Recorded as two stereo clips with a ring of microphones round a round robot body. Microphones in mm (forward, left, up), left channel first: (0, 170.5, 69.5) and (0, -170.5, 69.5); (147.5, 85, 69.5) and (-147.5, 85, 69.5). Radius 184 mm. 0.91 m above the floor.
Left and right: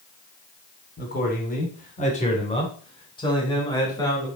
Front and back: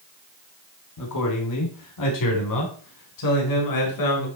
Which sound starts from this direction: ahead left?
A man speaking, at 1.0 s.